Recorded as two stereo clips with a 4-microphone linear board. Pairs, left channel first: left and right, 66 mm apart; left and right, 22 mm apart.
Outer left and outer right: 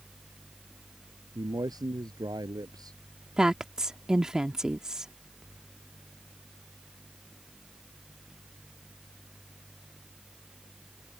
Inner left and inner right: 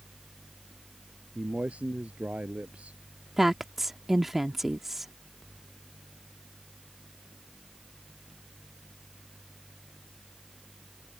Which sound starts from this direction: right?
A man speaking, at 1.4 s.